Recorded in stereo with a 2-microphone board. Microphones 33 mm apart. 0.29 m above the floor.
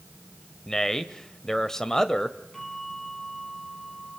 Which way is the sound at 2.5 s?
15° left (ahead or behind).